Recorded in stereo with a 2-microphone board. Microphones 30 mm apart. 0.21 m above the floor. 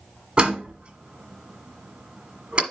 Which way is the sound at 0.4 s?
30° right (ahead or behind).